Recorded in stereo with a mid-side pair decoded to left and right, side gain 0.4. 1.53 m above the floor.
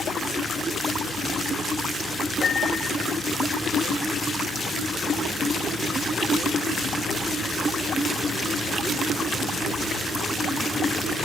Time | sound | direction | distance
2.4 | a piano | 60° left | 3.5 m